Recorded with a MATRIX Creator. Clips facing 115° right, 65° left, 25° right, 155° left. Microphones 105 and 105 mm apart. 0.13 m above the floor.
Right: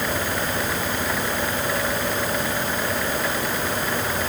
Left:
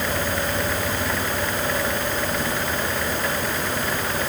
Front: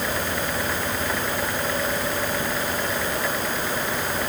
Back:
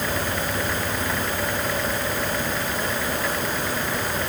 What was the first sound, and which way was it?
Only background noise.